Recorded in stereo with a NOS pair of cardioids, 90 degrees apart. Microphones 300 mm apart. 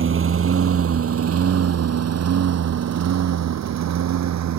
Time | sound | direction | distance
0.0 | a lawn mower | 45° right | ?